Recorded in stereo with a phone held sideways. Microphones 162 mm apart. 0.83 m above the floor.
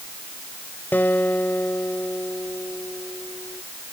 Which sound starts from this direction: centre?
A guitar, at 0.9 s.